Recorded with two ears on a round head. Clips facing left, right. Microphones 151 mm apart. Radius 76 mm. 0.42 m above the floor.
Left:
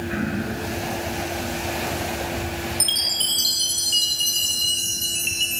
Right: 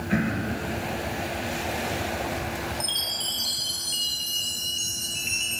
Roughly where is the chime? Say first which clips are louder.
Left 2 dB; left.